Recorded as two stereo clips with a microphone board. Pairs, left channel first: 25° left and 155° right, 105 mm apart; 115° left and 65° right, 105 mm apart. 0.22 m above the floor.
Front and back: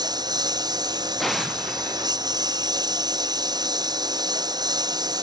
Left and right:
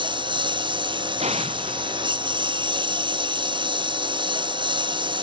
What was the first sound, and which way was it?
A lawn mower, 110° right.